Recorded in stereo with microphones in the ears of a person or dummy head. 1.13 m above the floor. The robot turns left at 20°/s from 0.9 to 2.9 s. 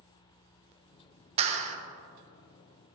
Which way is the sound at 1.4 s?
30° right (ahead or behind).